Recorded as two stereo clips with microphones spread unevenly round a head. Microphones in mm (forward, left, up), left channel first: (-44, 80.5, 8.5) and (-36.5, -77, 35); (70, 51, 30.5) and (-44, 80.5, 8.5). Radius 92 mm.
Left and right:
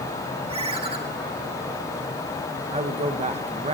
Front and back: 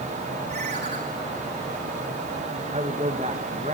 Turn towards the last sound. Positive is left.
turn(degrees=-135)